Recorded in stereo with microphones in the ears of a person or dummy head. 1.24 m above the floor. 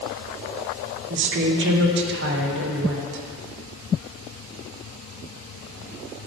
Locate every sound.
1.1 s a woman speaking: 55° right (ahead or behind), 0.9 m